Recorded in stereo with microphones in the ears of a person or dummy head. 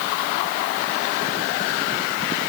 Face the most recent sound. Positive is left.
No sound to turn to.